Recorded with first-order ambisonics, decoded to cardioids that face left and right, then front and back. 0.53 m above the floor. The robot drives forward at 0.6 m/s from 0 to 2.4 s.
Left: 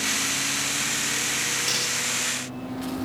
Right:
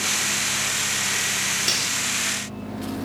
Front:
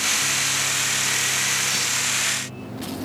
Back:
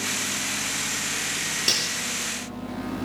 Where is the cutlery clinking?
160° right, 6 m.